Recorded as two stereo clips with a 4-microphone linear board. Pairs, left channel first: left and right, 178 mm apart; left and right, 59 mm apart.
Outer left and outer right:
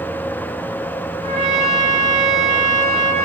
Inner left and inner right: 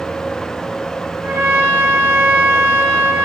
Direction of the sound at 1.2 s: 35° right (ahead or behind).